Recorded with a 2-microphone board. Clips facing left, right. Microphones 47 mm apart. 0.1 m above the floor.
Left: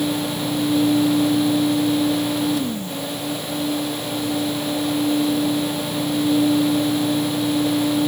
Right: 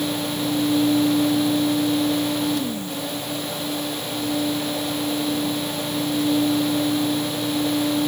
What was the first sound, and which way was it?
Only background noise.